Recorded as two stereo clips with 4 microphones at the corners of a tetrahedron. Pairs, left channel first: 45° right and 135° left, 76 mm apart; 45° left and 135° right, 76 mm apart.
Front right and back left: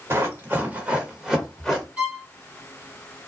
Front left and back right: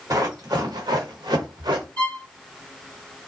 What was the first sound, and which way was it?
Running footsteps, 175° right.